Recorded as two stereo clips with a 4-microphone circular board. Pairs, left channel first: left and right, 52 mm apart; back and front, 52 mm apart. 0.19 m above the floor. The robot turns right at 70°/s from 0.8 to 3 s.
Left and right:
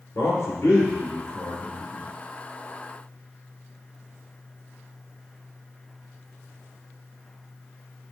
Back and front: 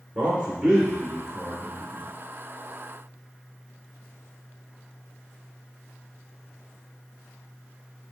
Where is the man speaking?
65° left, 3.5 m; by 2.1 s 155° left, 3.5 m.